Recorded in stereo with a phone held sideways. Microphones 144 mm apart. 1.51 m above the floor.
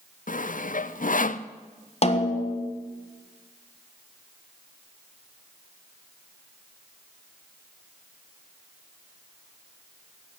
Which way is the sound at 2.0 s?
45° left (ahead or behind).